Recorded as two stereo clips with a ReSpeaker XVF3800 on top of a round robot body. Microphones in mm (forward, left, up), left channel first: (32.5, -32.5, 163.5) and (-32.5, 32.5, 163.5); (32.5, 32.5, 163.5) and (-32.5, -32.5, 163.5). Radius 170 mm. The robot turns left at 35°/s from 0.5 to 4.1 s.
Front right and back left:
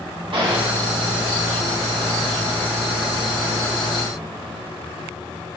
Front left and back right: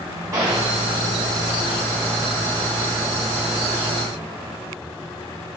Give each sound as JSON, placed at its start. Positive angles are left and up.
{"t": 0.3, "sound": "a gunshot", "azimuth_deg": 170, "distance_m": 2.0}